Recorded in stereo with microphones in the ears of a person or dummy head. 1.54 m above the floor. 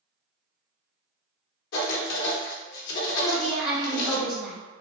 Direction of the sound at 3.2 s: 5° right (ahead or behind).